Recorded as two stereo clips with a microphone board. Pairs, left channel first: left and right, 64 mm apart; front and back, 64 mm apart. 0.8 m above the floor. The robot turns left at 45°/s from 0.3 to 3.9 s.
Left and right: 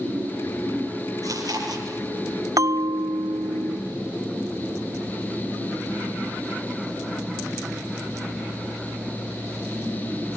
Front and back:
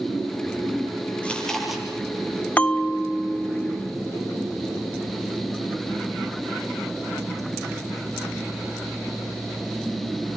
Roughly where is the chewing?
Right.